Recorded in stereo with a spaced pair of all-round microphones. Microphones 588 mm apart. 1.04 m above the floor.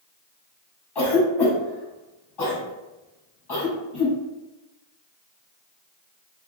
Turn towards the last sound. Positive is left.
turn(degrees=45)  # may be behind; listen again after turning